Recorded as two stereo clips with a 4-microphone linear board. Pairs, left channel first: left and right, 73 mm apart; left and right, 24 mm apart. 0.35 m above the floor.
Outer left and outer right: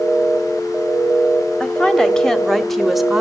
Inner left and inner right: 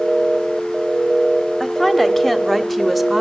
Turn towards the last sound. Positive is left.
turn(degrees=-5)  # may be behind; listen again after turning